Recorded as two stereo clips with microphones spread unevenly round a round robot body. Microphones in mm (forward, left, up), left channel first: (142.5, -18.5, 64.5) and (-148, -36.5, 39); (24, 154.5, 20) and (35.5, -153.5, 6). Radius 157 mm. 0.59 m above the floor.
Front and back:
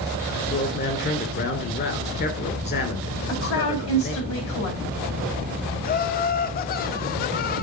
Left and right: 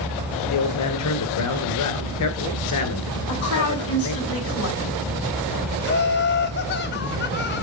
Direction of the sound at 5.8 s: 55° left.